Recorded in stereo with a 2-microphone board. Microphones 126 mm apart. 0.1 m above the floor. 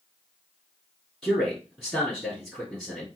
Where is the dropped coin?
I don't hear a dropped coin.